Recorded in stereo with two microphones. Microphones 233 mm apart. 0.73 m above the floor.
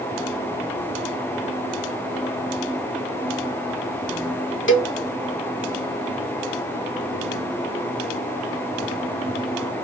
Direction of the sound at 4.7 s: 55° left (ahead or behind).